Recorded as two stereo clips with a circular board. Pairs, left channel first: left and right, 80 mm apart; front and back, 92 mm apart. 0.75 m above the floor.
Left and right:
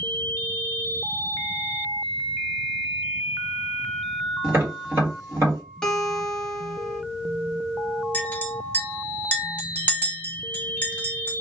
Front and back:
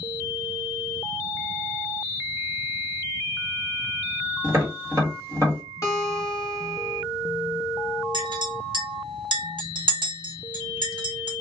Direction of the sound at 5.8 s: 15° left.